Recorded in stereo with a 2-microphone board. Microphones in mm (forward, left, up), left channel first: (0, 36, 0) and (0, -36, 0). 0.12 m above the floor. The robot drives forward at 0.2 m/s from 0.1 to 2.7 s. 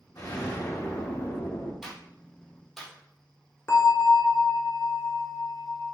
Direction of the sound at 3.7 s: 40° left (ahead or behind).